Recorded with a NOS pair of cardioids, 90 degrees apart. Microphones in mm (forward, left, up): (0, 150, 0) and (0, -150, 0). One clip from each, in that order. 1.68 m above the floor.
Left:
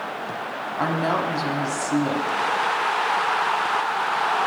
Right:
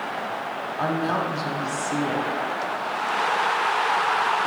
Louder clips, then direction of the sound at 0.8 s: Left 2 dB; 20° left.